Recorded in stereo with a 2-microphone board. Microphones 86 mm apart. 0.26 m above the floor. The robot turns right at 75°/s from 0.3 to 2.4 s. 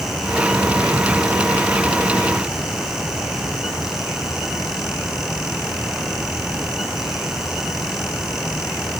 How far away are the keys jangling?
I don't hear keys jangling.